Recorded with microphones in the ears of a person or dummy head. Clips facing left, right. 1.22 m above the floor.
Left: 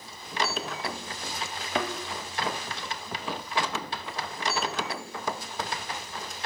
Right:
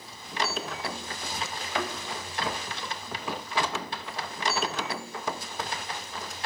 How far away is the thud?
About 1.1 m.